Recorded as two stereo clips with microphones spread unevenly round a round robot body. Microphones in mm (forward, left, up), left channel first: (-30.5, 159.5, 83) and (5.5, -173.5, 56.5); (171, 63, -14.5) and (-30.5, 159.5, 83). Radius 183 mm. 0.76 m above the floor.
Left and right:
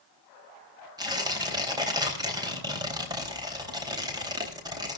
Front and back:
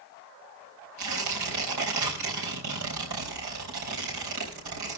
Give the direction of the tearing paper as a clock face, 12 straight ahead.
5 o'clock.